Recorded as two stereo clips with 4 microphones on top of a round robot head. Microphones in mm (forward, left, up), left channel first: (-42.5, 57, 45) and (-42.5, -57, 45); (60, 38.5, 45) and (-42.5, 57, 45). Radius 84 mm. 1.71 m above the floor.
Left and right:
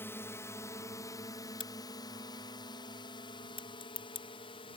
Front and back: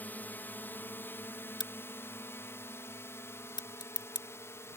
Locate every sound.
0.0 s a drone: 45° left; by 4.8 s 50° left
1.6 s a crack: 35° left